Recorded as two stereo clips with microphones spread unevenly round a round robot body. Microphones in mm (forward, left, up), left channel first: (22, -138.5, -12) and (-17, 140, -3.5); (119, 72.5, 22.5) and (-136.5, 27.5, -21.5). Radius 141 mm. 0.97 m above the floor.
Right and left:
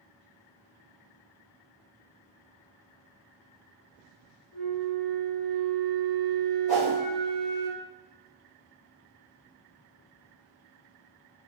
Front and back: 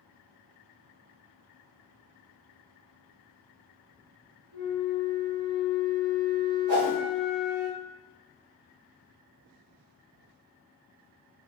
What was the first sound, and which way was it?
A flute, 130° right.